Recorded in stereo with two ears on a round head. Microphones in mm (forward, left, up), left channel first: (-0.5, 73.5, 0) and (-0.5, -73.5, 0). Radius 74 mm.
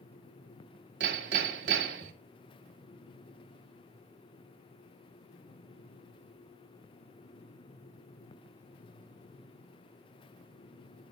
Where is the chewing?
I don't hear chewing.